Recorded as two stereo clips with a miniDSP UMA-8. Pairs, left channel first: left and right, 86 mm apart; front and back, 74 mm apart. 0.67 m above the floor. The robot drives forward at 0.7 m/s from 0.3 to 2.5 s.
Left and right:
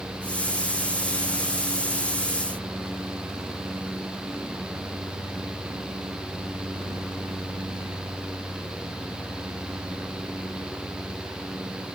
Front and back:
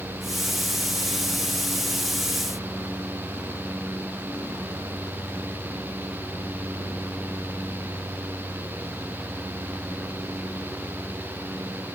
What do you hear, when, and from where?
Only background noise.